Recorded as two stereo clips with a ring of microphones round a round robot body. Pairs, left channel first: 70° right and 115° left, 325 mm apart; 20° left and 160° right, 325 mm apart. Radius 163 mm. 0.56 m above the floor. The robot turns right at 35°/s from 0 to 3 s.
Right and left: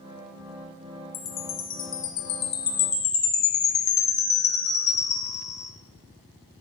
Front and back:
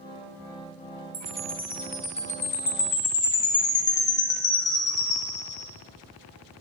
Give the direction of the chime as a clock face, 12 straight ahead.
3 o'clock.